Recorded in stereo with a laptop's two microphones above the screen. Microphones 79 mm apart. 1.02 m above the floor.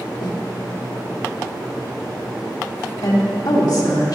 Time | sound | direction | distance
0.2 | a snare drum | 60° left (ahead or behind) | 1.8 m
3.0 | a woman speaking | 60° left (ahead or behind) | 3 m